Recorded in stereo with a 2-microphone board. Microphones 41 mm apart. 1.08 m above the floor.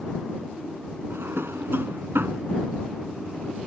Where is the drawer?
85° right.